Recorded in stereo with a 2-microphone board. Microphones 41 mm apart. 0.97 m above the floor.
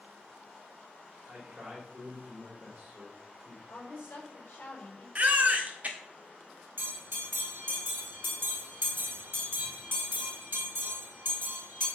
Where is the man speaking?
35° right (ahead or behind), 3 m.